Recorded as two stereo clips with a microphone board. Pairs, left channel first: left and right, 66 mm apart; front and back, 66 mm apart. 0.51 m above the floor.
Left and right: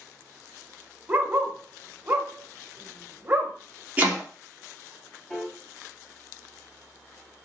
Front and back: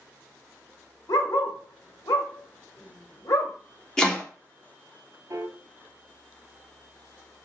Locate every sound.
1.1 s a dog barking: 30° right, 1.0 m
4.0 s chopping: 65° right, 1.3 m
5.3 s a piano: straight behind, 1.0 m